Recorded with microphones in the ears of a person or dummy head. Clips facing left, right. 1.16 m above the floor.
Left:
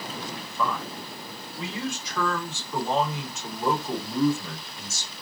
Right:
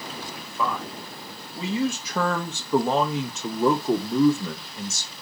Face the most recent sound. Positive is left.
turn(degrees=-75)  # may be behind; listen again after turning